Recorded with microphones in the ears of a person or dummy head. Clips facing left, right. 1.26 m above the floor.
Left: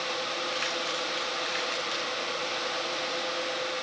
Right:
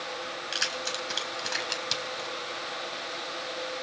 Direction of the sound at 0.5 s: 65° right (ahead or behind).